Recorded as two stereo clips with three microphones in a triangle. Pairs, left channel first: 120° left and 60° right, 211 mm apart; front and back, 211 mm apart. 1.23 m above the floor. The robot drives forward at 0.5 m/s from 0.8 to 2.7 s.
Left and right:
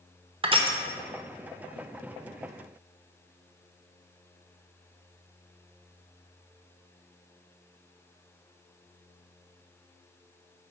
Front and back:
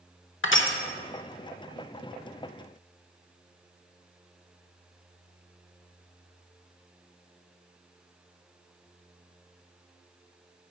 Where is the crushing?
Straight ahead, 0.8 m.